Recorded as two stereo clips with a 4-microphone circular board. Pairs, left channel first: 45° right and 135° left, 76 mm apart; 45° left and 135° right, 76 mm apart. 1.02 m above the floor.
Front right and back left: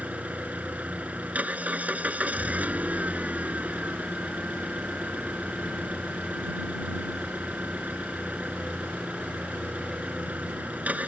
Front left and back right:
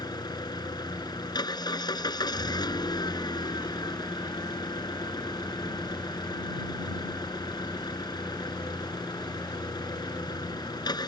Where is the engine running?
65° left.